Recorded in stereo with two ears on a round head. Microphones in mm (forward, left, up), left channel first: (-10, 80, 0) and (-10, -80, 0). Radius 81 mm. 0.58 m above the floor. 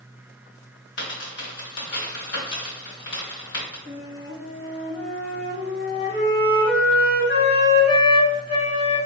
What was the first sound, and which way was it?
A dropped coin, 65° left (ahead or behind).